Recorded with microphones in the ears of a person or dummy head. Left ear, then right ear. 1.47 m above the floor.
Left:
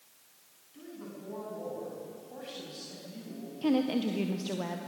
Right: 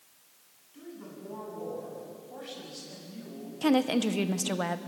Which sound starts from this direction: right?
A woman speaking, at 3.6 s.